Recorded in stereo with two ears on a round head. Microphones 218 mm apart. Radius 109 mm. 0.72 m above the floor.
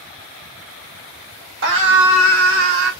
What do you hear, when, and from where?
1.6 s a scream: 50° right (ahead or behind), 1.1 m; by 2.9 s 60° right (ahead or behind), 2.0 m